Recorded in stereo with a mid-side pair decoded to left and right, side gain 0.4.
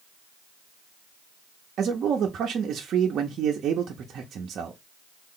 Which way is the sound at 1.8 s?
65° right.